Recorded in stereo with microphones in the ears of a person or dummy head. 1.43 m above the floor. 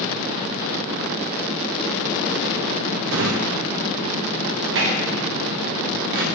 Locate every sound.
3.1 s a drawer: 60° right (ahead or behind), 1.0 m